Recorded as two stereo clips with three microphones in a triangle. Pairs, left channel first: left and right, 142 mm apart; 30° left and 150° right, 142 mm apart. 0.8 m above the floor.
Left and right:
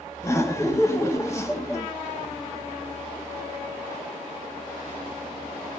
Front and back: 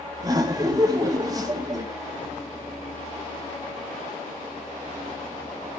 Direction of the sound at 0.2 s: 155° left.